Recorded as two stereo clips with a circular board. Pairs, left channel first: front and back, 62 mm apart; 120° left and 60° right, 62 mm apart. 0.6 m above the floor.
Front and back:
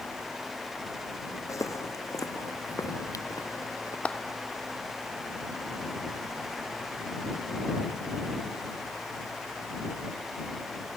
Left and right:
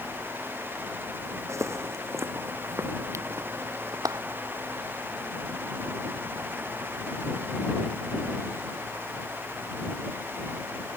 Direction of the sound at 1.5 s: 25° right.